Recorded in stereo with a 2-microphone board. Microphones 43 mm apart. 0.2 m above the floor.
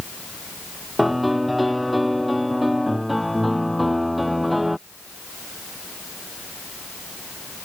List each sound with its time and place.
1.0 s a piano: 5° right (ahead or behind)